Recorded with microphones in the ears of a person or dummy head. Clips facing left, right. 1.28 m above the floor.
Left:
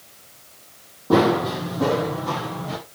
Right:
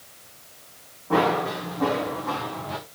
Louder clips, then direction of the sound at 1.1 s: Left 5 dB; 60° left (ahead or behind).